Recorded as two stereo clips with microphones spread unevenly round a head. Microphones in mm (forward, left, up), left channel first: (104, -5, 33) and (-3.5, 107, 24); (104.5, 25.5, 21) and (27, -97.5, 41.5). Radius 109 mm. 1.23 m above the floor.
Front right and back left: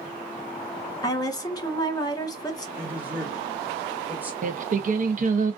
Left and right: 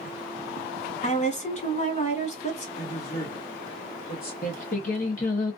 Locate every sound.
1.0 s a woman speaking: 20° left, 1.2 m
2.8 s a man speaking: 55° left, 1.3 m
4.4 s singing: 95° left, 0.6 m